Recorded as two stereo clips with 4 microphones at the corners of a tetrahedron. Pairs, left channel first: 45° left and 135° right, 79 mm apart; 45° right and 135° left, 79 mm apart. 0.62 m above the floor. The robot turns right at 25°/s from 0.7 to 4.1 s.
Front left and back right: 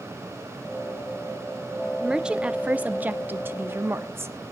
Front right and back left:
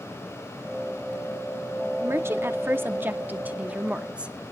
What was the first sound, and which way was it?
A woman speaking, 145° left.